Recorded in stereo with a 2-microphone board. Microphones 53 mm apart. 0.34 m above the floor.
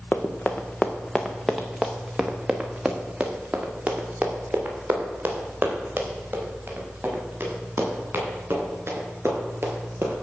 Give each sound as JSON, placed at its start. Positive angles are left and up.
{"t": 0.1, "sound": "running footsteps", "side_deg": 35, "distance_m": 1.5}